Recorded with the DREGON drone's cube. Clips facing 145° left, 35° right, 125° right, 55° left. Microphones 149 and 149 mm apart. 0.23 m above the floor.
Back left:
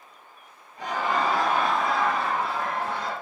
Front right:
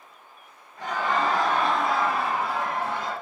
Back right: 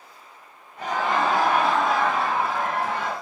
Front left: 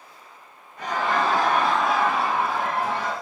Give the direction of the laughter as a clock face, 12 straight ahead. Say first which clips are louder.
Even, even; 5 o'clock.